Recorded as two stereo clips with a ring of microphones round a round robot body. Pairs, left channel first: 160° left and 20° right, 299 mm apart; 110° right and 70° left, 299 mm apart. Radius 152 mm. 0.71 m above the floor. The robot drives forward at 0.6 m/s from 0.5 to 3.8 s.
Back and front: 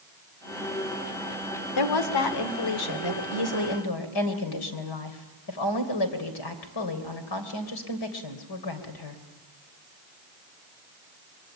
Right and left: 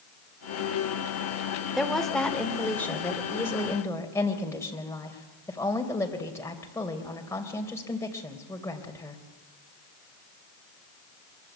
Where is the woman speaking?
160° left, 2 m; by 9.2 s 165° left, 3.5 m.